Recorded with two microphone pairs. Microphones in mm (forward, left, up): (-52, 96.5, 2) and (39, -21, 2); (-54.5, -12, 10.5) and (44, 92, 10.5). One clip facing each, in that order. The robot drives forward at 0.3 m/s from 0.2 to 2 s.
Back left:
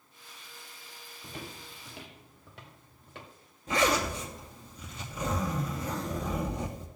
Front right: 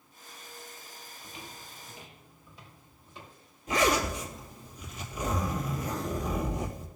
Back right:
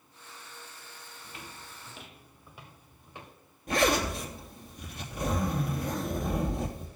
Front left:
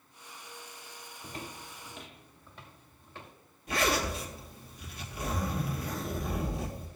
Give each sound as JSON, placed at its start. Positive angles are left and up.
{"t": 1.2, "sound": "footsteps", "azimuth_deg": 80, "distance_m": 0.6}
{"t": 3.7, "sound": "a zipper", "azimuth_deg": -175, "distance_m": 3.0}